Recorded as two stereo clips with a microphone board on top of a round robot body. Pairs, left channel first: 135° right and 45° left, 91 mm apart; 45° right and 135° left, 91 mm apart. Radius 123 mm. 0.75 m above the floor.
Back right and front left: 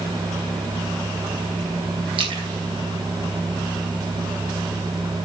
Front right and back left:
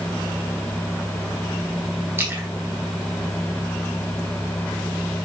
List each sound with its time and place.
2.2 s a splash: 70° left, 1.8 m